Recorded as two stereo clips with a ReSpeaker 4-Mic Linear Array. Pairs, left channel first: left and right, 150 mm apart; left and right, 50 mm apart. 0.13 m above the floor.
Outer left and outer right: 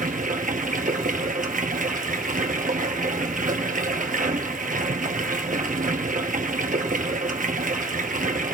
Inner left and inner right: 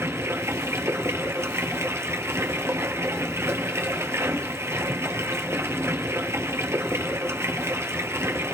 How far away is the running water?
About 1.4 m.